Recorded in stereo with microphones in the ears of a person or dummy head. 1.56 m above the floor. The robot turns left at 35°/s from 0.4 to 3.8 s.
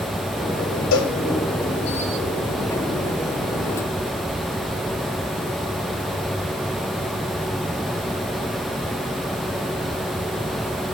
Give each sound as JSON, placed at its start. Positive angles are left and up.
{"t": 0.9, "sound": "a cowbell", "side_deg": 80, "distance_m": 3.0}